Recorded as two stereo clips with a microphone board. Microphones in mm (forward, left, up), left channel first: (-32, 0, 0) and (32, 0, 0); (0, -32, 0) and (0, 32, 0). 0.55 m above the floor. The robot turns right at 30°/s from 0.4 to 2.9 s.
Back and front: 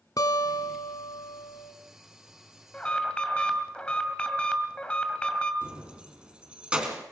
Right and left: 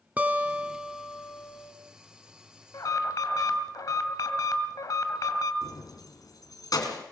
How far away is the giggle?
No giggle in this recording.